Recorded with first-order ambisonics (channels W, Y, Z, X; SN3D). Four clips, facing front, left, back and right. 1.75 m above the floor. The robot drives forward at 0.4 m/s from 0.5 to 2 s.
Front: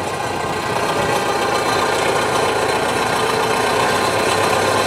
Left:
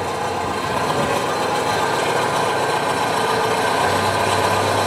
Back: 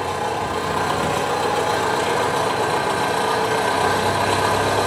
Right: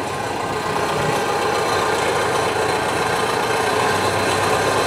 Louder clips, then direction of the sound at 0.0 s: Left 1 dB, front 1 dB; 25° right.